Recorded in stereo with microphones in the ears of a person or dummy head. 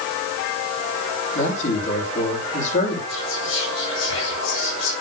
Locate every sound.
1.4 s a man speaking: 45° left (ahead or behind), 7.5 m
3.1 s whispering: 75° left (ahead or behind), 8 m